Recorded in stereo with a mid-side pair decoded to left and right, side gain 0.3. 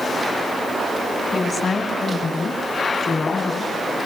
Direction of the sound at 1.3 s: 60° left.